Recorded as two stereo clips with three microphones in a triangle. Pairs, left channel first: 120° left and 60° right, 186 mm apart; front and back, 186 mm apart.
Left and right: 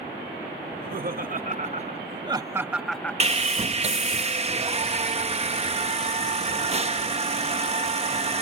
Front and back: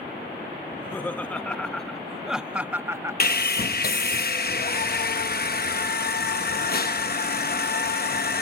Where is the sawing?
15° right.